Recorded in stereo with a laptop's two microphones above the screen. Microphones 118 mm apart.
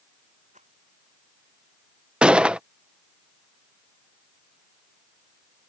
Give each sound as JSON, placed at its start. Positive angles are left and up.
{"t": 0.5, "sound": "a rattle", "side_deg": -85}
{"t": 2.2, "sound": "a gunshot", "side_deg": -10}